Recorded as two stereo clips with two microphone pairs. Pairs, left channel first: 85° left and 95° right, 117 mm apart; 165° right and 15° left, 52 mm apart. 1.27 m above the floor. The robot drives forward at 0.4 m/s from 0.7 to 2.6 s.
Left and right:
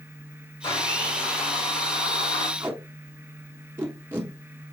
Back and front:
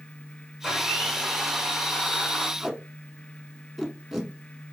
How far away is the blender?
About 1.6 m.